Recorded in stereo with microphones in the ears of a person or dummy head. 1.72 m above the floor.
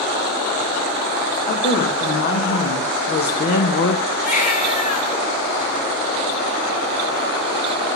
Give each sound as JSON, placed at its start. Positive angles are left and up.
{"t": 1.5, "sound": "a woman speaking", "side_deg": 55, "distance_m": 3.5}
{"t": 4.2, "sound": "a baby crying", "side_deg": 50, "distance_m": 3.5}